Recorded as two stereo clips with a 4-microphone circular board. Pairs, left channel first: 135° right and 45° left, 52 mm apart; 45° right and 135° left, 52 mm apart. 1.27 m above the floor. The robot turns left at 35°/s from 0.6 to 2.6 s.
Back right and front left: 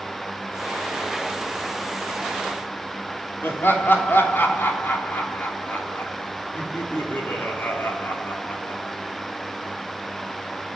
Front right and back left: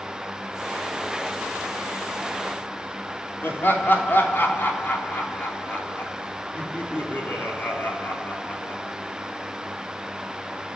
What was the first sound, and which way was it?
Laughter, 90° right.